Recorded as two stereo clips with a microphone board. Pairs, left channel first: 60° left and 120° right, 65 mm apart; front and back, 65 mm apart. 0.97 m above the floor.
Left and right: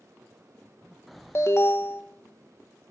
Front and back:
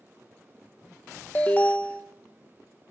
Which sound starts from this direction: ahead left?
An alarm, at 1.4 s.